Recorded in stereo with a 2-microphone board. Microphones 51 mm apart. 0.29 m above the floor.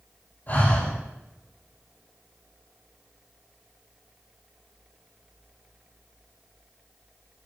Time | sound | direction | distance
0.5 | breathing | 40° left (ahead or behind) | 4.5 m